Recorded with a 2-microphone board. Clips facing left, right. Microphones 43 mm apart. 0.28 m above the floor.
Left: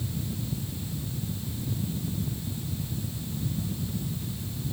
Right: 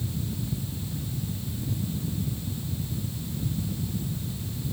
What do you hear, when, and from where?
Only background noise.